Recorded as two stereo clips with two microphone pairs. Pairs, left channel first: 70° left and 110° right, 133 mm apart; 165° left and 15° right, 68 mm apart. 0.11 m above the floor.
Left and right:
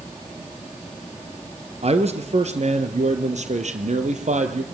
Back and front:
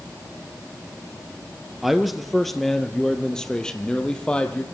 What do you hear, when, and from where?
1.8 s a man speaking: 105° right, 2 m; by 4.6 s 125° right, 3.5 m